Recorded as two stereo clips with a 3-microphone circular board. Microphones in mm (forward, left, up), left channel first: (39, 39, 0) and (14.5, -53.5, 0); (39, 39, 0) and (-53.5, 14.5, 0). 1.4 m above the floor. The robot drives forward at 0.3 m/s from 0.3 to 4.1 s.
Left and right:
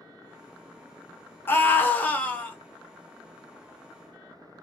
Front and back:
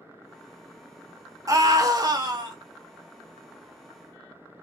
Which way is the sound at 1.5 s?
140° left.